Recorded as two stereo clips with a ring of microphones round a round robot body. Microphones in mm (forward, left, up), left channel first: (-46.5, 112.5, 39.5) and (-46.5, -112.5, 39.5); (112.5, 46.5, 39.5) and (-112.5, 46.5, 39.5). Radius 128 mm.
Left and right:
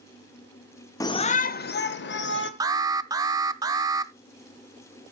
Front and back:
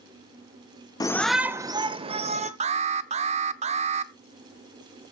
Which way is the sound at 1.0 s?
40° left.